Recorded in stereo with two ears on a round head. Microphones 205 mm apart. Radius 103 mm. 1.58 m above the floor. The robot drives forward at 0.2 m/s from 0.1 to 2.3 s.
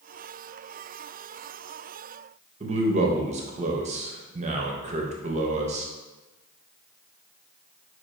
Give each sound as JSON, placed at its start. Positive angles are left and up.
{"t": 2.6, "sound": "a man speaking", "side_deg": -30, "distance_m": 0.5}